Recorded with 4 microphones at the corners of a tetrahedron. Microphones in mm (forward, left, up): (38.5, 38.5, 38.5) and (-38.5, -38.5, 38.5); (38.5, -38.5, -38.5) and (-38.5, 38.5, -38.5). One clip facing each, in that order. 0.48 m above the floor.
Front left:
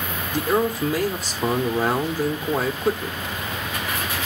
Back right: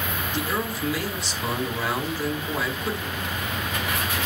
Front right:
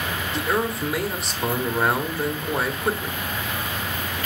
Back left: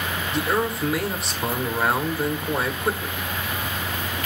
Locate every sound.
0.3 s a man speaking: 45° left, 1.5 m